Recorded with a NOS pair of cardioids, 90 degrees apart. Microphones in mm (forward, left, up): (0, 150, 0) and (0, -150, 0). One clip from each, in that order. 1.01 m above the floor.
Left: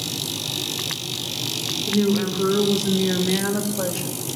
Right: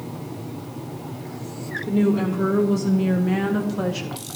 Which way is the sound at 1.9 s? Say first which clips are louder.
Right 1 dB; 20° right.